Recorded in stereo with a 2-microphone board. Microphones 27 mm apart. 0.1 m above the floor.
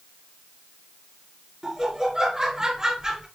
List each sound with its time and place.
1.6 s laughter: 20° right (ahead or behind), 1.2 m